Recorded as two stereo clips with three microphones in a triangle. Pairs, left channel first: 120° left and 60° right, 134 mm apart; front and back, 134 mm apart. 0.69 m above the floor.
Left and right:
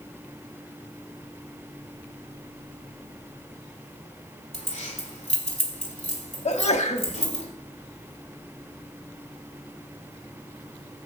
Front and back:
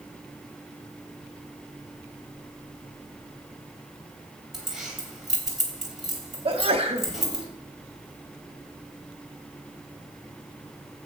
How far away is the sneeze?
About 1.0 m.